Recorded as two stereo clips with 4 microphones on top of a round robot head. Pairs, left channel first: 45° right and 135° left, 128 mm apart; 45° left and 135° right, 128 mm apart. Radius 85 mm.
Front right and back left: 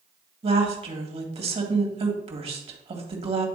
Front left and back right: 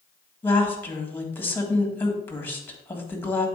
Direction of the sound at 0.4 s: 115° left.